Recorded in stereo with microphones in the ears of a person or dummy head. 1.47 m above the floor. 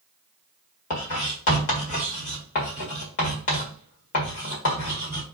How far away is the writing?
About 1.7 m.